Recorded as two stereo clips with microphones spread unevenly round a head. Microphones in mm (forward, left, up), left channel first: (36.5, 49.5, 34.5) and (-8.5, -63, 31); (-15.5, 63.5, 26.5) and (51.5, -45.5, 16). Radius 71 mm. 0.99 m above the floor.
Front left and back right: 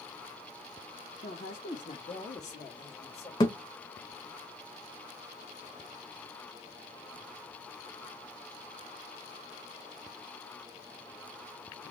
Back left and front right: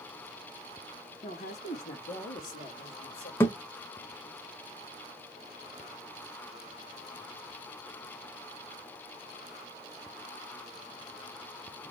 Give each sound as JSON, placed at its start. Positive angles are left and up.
{"t": 1.2, "sound": "a woman speaking", "azimuth_deg": 75, "distance_m": 1.2}
{"t": 3.4, "sound": "a thud", "azimuth_deg": 80, "distance_m": 0.7}